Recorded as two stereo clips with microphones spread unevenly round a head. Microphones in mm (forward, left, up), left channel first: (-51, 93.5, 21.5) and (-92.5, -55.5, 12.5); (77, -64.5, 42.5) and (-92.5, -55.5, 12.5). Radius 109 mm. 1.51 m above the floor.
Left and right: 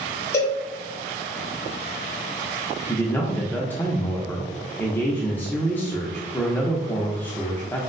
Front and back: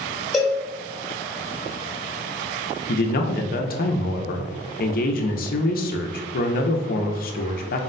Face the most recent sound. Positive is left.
turn(degrees=-5)